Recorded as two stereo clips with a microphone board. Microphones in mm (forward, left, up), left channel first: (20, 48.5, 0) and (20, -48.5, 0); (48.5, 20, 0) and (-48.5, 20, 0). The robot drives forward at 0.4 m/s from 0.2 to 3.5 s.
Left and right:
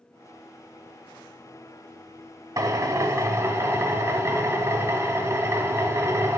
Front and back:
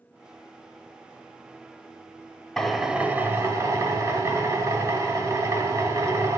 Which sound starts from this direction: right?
A drill, at 2.6 s.